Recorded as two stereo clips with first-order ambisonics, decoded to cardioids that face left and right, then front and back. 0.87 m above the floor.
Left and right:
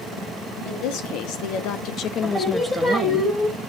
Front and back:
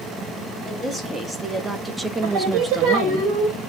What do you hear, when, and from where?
0.7 s a woman speaking: 95° left, 2.5 m; by 3.2 s 100° right, 0.9 m
2.2 s singing: 170° left, 3.5 m